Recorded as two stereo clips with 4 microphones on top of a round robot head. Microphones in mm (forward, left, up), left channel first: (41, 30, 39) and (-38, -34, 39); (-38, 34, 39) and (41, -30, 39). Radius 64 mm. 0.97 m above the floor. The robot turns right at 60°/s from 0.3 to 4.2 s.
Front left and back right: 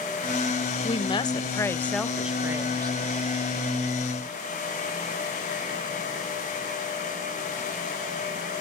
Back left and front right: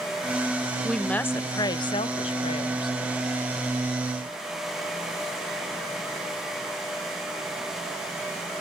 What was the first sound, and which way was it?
A woman speaking, 50° left.